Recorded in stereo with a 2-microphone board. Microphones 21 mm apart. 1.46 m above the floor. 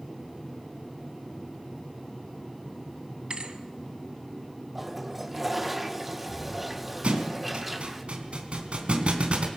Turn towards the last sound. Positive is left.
turn(degrees=-70)  # may be behind; listen again after turning